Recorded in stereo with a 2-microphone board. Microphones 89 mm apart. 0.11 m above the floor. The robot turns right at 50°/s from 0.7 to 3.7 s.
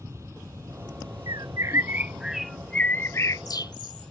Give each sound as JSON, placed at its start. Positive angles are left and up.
{"t": 0.0, "sound": "an aircraft", "azimuth_deg": -145}
{"t": 1.3, "sound": "a bird", "side_deg": -45}